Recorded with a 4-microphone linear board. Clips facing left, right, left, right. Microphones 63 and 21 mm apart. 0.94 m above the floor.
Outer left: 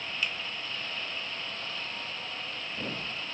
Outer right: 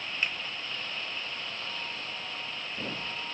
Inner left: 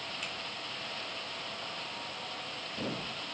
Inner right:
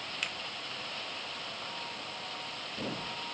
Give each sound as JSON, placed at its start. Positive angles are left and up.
{"t": 0.2, "sound": "a finger snap", "side_deg": -35, "distance_m": 0.9}